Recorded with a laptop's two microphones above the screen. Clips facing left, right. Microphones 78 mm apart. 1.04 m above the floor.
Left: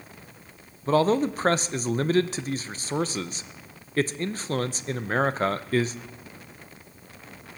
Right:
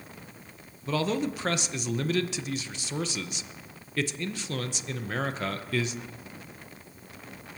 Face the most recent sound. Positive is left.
turn(degrees=40)  # may be behind; listen again after turning